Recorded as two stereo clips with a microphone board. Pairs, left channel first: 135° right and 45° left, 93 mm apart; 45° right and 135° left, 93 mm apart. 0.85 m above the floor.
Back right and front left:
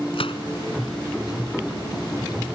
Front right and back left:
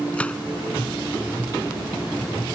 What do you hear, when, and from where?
0.1 s a gunshot: 120° right